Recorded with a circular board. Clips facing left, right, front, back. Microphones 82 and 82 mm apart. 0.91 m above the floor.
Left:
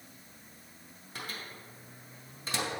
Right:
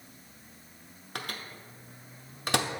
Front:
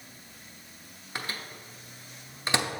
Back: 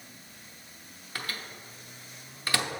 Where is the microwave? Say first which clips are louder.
Right 3 dB, front 1 dB; 70° right, 0.6 m.